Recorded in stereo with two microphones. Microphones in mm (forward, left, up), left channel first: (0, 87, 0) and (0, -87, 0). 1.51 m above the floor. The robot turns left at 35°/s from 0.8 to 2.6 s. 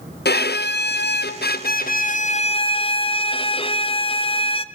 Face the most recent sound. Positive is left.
turn(degrees=35)